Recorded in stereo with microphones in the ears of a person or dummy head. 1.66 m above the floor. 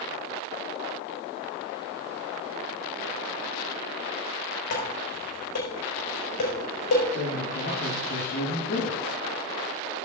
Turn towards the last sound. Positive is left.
turn(degrees=60)  # may be behind; listen again after turning